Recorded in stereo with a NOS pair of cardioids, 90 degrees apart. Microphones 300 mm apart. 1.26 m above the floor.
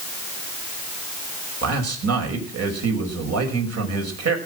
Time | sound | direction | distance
1.6 | a man speaking | 55° right | 6 m